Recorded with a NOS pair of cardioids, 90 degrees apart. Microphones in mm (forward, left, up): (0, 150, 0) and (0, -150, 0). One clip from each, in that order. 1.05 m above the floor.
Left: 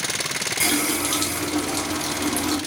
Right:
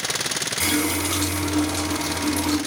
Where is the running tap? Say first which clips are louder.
Left 1 dB; 30° left, 1.6 m.